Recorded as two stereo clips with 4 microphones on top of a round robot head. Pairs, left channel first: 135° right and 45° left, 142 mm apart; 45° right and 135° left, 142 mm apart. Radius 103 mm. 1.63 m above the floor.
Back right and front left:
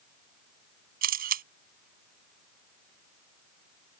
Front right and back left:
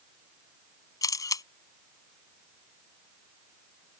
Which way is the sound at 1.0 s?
20° left.